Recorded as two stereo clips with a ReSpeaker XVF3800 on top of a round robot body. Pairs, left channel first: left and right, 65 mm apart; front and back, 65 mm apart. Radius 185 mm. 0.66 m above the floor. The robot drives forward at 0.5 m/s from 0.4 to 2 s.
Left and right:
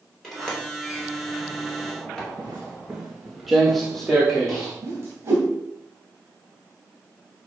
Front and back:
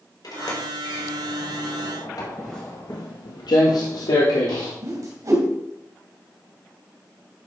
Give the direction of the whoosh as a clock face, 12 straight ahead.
5 o'clock.